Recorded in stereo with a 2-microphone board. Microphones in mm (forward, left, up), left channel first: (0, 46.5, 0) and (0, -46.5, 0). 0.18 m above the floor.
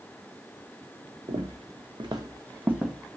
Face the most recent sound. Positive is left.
turn(degrees=5)  # may be behind; listen again after turning